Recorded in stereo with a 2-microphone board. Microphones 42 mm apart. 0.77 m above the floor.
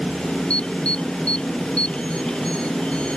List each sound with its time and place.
0.5 s an alarm: 25° left (ahead or behind)